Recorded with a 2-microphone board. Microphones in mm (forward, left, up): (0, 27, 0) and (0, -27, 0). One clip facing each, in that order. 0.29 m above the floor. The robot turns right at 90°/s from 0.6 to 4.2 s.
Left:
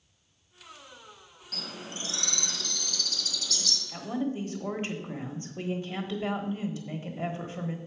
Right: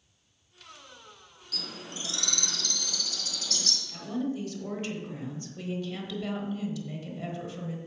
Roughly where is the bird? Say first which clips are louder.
Left 1 dB; left.